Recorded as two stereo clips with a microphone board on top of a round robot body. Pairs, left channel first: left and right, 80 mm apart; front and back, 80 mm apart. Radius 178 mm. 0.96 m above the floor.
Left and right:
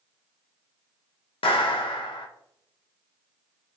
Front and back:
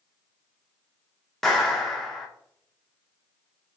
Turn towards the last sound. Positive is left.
turn(degrees=85)